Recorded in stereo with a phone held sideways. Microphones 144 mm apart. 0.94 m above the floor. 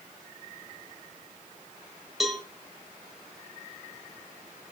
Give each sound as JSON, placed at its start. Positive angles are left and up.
{"t": 2.2, "sound": "a cowbell", "side_deg": 0, "distance_m": 1.2}